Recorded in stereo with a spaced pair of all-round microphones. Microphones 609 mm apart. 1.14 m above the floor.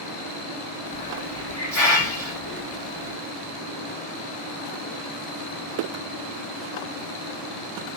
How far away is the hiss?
About 1.2 m.